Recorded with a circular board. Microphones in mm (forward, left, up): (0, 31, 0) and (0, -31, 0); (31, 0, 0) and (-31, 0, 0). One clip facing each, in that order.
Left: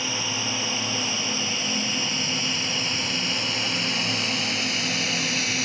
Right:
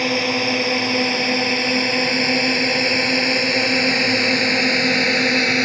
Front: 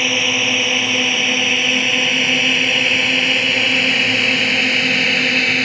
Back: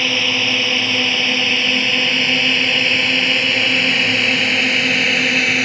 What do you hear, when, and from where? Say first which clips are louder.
0.0 s a drone: right 10 dB, even; 80° right; by 5.6 s 95° right